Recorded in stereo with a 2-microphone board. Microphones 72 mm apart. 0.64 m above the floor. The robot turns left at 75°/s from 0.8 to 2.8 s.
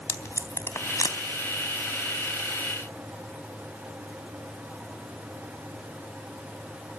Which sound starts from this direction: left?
Tape being pulled, at 0.1 s.